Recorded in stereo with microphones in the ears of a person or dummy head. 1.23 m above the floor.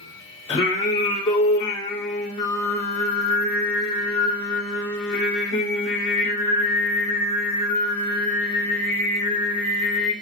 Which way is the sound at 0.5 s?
25° left (ahead or behind).